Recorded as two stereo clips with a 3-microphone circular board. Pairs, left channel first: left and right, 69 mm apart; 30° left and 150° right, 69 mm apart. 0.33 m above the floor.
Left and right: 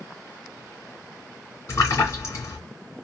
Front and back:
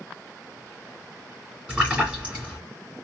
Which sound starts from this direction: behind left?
A splash, at 1.7 s.